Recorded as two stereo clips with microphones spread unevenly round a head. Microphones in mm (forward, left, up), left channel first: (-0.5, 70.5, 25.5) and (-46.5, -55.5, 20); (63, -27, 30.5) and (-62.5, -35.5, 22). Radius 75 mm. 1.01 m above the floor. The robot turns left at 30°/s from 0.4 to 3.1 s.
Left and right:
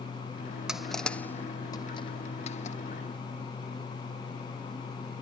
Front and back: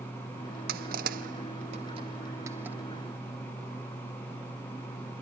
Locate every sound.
0.7 s crushing: 165° left; by 2.8 s 100° left